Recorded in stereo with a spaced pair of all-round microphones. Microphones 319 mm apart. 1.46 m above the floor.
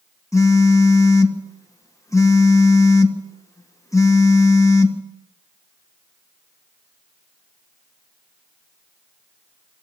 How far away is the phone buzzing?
About 1.6 m.